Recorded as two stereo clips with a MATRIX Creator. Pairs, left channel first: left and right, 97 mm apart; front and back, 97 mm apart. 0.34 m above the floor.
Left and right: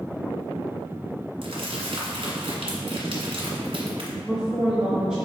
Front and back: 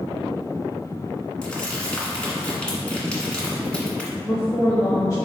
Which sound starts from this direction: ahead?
A woman speaking, at 4.2 s.